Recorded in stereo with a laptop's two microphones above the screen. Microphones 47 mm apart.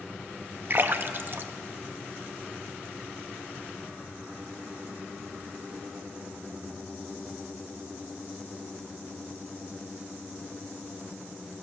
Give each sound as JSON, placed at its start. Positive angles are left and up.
{"t": 0.7, "sound": "a splash", "side_deg": -45, "distance_m": 0.6}